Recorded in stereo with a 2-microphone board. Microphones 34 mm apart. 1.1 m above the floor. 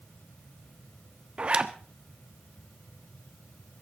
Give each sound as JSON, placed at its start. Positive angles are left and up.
{"t": 1.4, "sound": "a zipper", "side_deg": -30, "distance_m": 1.1}